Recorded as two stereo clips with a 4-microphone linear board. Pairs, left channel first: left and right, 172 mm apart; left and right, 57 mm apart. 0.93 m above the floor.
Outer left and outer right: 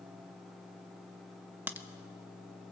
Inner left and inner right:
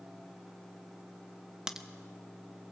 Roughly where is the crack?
Centre.